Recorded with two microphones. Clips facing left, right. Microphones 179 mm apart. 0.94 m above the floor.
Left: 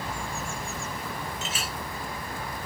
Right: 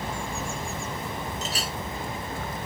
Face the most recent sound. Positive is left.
turn(degrees=-40)  # may be behind; listen again after turning